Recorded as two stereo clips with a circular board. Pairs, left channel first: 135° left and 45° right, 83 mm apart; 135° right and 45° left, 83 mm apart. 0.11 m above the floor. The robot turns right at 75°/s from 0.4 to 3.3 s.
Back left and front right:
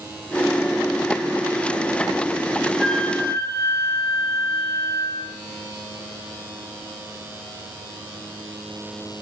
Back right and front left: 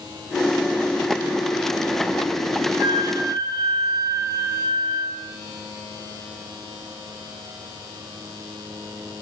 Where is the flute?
45° left, 3 m; by 5.2 s 85° left, 3 m.